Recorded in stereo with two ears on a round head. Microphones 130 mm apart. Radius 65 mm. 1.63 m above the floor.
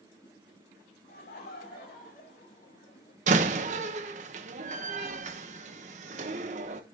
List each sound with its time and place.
1.1 s laughter: 75° left (ahead or behind), 4 m; by 3.2 s 55° left (ahead or behind), 3 m
3.3 s a door slam: 55° right (ahead or behind), 1.1 m